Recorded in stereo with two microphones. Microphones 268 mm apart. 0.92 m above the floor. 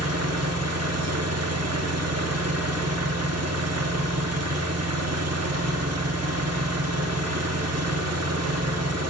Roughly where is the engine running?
Right.